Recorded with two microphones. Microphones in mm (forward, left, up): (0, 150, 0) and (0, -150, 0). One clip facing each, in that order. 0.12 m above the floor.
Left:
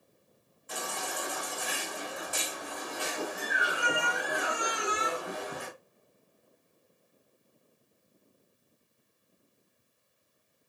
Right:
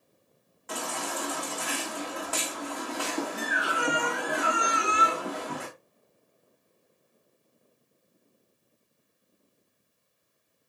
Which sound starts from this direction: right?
A baby crying, at 0.7 s.